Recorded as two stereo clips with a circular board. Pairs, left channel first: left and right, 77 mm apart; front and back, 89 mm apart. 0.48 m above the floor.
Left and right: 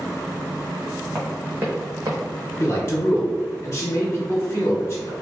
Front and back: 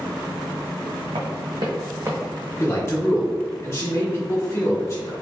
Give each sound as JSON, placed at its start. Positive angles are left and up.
{"t": 1.1, "sound": "running footsteps", "azimuth_deg": -175, "distance_m": 1.6}
{"t": 2.6, "sound": "a man speaking", "azimuth_deg": 50, "distance_m": 0.9}